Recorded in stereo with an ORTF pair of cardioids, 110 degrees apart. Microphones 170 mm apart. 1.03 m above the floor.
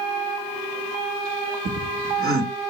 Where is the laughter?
50° right, 1.2 m.